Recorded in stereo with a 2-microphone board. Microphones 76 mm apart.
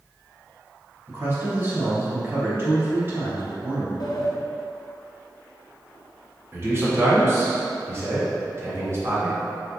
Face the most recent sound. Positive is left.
turn(degrees=-40)  # may be behind; listen again after turning